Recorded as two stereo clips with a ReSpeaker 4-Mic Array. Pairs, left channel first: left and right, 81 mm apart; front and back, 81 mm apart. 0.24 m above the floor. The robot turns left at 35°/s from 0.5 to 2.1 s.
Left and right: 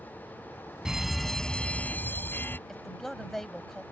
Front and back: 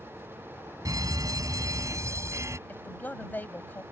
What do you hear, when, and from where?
0.8 s a fire alarm: 170° right; by 2.6 s 145° left
2.7 s a woman speaking: 10° left